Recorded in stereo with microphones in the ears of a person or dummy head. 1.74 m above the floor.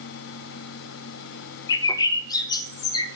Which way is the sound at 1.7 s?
25° left (ahead or behind).